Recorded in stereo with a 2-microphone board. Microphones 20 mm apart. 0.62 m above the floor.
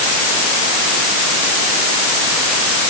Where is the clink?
No clink in this recording.